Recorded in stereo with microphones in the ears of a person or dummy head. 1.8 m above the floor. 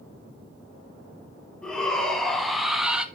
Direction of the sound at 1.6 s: 5° left (ahead or behind).